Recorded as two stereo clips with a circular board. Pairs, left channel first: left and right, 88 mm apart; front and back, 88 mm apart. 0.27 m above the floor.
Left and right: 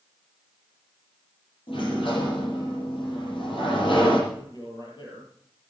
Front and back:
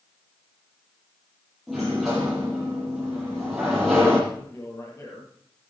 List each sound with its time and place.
1.7 s a sliding door: 90° left, 9.5 m
4.3 s a man speaking: 55° left, 8 m